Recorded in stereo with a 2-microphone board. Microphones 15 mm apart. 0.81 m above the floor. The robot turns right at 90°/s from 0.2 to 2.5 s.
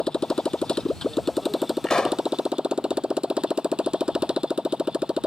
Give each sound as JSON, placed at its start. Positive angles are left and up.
{"t": 0.0, "sound": "a motorcycle", "azimuth_deg": 60}
{"t": 1.8, "sound": "a pop", "azimuth_deg": 55}